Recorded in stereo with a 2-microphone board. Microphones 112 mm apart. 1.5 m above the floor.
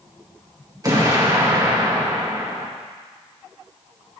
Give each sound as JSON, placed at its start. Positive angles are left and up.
{"t": 0.8, "sound": "an explosion", "side_deg": -30, "distance_m": 1.7}